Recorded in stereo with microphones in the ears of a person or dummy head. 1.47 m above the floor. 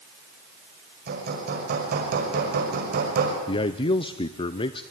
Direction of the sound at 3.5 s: 25° left (ahead or behind).